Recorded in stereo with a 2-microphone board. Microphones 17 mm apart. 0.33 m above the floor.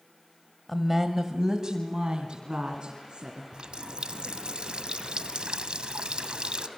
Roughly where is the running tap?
Right.